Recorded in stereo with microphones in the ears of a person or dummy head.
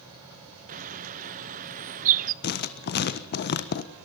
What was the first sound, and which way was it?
A bird, 45° right (ahead or behind).